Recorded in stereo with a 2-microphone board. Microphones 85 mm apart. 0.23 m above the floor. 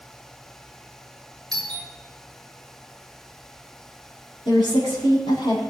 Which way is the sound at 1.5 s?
10° left (ahead or behind).